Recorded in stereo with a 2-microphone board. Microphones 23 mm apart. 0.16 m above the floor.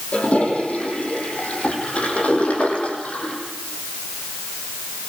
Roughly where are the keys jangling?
No keys jangling in this recording.